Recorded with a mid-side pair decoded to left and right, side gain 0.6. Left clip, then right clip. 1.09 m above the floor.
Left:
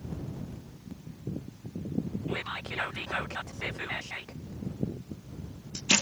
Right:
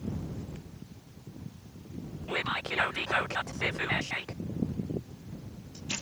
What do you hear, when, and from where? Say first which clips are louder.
2.3 s whispering: right 7 dB; 25° right